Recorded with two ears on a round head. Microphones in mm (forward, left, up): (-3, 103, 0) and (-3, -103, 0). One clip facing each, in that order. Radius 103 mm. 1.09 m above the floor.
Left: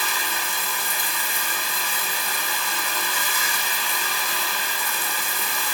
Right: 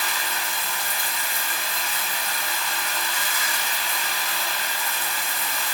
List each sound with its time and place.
0.0 s running water: 80° left, 2 m